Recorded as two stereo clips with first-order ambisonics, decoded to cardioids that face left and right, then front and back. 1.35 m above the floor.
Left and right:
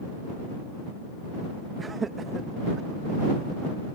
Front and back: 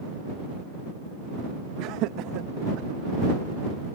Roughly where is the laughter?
Behind.